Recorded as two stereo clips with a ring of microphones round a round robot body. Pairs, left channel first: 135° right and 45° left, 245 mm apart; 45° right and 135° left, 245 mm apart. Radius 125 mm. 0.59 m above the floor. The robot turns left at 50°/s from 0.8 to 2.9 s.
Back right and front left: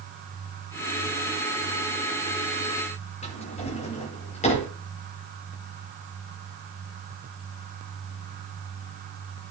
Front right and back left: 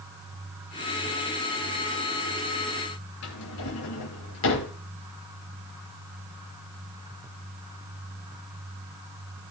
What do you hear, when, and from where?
3.2 s a drawer: 70° right, 6.5 m